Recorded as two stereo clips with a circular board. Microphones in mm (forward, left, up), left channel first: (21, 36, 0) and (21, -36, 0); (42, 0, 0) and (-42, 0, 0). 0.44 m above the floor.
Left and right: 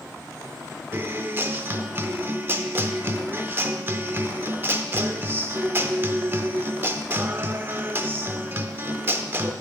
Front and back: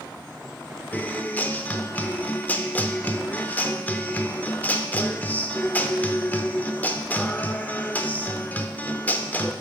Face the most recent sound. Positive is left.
turn(degrees=-55)